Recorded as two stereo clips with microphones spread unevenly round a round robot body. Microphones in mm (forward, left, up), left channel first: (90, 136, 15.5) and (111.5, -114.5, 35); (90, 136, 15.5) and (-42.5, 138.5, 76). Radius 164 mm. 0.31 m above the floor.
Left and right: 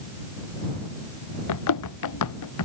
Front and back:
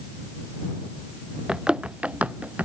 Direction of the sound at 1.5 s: 95° left.